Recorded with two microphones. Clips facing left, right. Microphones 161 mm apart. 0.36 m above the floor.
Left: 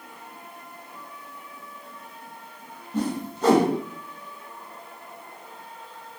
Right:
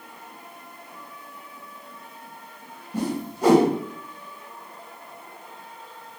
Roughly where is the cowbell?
No cowbell in this recording.